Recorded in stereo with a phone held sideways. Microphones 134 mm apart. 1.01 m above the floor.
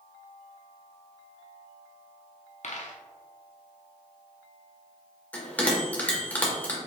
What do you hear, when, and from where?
2.6 s a dropped coin: 65° left (ahead or behind), 0.7 m
5.3 s a bell: 10° left (ahead or behind), 1.2 m